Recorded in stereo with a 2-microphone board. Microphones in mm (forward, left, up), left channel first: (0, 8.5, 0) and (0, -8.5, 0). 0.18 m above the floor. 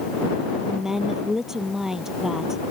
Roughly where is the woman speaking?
Right.